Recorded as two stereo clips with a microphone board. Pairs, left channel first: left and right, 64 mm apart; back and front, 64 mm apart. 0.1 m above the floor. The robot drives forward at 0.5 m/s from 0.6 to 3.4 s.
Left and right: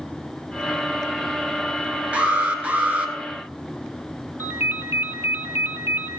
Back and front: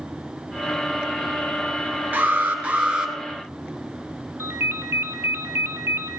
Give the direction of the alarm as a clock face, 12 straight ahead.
1 o'clock.